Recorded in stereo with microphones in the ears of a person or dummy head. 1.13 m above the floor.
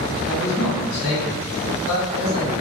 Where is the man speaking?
70° left (ahead or behind), 1.7 m.